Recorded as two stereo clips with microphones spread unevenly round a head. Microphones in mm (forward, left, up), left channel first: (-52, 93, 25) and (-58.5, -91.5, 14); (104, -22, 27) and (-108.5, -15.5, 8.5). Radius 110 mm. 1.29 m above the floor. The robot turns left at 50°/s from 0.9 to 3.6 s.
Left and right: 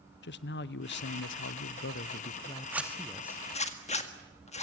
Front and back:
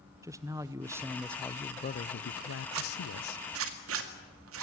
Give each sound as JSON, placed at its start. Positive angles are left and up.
{"t": 0.2, "sound": "a man speaking", "azimuth_deg": 105, "distance_m": 0.8}
{"t": 2.7, "sound": "a zipper", "azimuth_deg": -170, "distance_m": 1.9}